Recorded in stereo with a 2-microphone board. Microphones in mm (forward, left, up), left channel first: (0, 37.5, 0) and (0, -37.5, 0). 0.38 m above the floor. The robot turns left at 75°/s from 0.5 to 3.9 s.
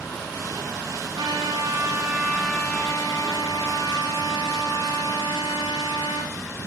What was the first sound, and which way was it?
A trumpet, 85° right.